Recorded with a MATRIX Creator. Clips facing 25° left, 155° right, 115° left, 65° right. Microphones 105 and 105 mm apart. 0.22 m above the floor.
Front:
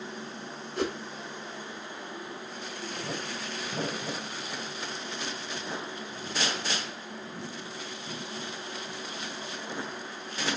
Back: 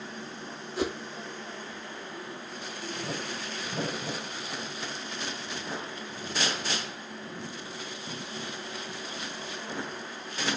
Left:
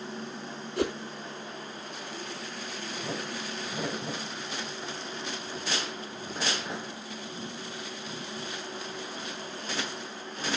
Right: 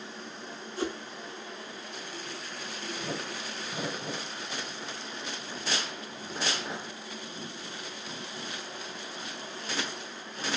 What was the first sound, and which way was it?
A whoosh, 115° left.